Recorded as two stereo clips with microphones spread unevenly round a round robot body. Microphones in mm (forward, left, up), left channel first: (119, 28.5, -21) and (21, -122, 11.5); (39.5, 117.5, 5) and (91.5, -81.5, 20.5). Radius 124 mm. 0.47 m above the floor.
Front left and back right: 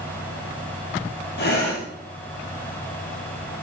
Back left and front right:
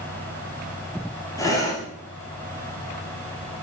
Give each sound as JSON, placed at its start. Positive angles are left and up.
{"t": 1.4, "sound": "breathing", "azimuth_deg": 30, "distance_m": 2.5}